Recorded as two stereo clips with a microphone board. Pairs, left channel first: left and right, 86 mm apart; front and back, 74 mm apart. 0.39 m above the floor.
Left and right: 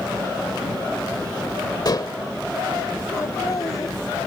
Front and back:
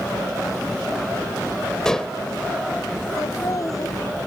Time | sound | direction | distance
1.9 | dishes clattering | 80° left | ?
3.2 | laughter | 40° left | ?